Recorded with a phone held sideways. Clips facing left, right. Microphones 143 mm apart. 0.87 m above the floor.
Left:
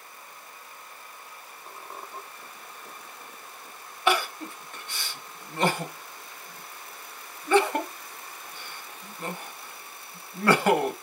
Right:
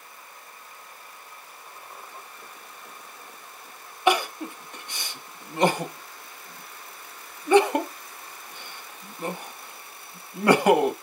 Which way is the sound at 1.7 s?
65° left (ahead or behind).